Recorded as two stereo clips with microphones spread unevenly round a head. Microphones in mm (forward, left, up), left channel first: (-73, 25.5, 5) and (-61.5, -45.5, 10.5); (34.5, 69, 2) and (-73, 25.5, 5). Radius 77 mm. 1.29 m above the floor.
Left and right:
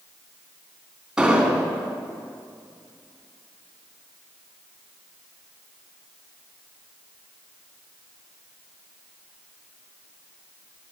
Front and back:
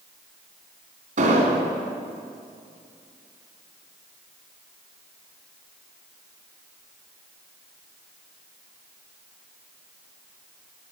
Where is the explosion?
160° right, 3 m.